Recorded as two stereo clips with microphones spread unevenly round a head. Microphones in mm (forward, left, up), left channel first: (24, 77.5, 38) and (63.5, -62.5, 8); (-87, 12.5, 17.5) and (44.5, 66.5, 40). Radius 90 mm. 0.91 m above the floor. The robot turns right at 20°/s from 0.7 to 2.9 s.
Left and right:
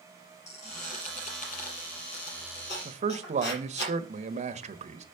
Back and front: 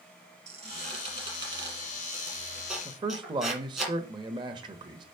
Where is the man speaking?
45° right, 1.2 m.